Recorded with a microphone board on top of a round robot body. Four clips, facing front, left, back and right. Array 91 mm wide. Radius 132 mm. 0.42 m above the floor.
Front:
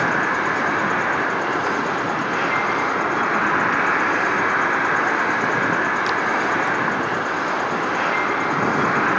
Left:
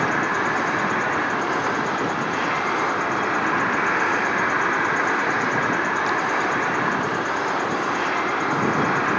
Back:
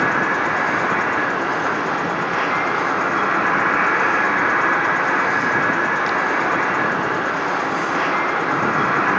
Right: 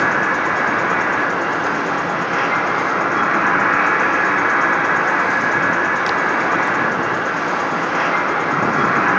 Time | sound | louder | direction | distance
0.0 | an insect | right 4 dB, back 1 dB | 80° right | 7 m